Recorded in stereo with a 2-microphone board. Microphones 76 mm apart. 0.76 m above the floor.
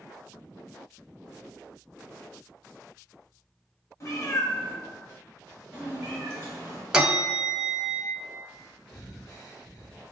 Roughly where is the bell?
Centre.